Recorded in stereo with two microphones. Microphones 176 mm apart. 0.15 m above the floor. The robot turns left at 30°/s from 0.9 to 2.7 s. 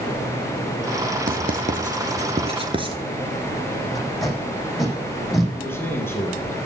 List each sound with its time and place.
1.3 s writing: 60° right (ahead or behind), 1.7 m; by 3.0 s 30° right (ahead or behind), 1.7 m
4.0 s tape being pulled: centre (ahead or behind), 7.5 m
5.5 s a man speaking: 15° left (ahead or behind), 4 m